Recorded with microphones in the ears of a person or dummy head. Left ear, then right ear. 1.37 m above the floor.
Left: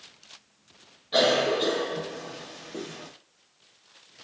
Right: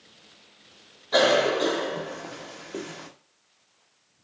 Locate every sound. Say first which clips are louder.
1.1 s a cough: right 2 dB; 30° right (ahead or behind), 0.6 m